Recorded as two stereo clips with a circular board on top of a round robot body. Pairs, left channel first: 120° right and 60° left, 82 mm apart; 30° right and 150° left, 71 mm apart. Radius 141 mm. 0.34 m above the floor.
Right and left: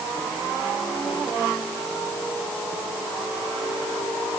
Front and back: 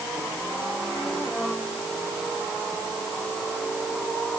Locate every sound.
Only background noise.